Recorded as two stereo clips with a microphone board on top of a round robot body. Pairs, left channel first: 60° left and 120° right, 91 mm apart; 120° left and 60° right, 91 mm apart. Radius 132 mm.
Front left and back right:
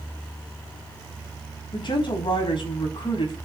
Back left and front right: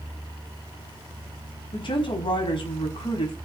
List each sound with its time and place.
1.7 s a woman speaking: 90° left, 4.5 m